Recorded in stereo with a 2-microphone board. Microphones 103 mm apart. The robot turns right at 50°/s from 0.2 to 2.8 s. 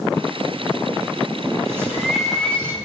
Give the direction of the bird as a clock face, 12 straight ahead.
1 o'clock.